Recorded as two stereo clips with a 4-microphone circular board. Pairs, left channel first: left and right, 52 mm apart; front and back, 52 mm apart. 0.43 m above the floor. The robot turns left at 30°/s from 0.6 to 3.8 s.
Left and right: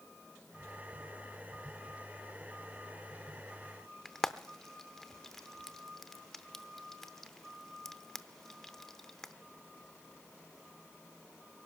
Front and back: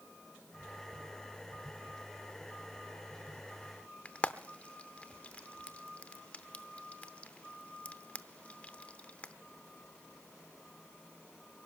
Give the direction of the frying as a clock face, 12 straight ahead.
11 o'clock.